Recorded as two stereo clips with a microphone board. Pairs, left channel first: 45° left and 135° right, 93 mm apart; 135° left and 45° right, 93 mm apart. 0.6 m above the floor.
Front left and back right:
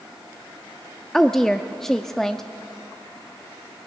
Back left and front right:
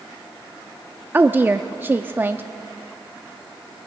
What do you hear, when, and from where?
1.1 s a woman speaking: 35° right, 0.6 m